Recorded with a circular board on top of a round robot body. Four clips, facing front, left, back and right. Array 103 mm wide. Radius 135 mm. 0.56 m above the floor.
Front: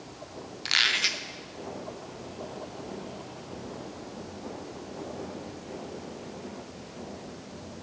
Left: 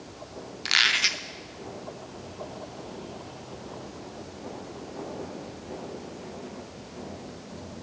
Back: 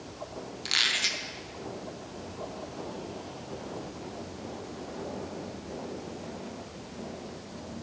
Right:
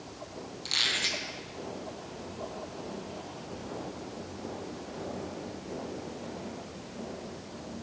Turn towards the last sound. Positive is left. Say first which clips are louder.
# left 9 dB, front 4 dB
turn(degrees=70)